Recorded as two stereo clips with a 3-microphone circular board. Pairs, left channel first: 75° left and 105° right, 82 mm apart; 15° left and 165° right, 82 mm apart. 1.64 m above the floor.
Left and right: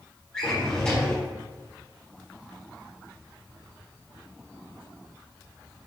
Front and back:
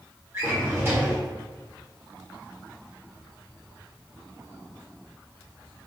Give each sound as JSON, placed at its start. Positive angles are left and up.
{"t": 0.3, "sound": "a drawer", "azimuth_deg": 145, "distance_m": 1.5}